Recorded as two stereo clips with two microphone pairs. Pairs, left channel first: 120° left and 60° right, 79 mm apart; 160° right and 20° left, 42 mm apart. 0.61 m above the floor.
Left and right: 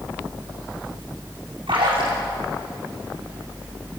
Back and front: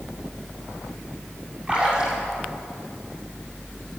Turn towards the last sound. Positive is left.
turn(degrees=-50)